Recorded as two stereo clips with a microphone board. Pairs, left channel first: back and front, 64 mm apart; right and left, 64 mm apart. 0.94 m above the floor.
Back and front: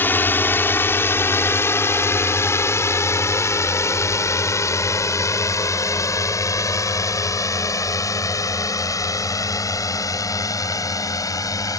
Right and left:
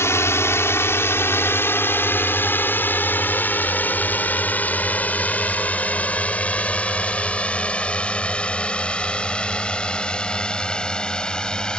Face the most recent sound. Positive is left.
turn(degrees=-165)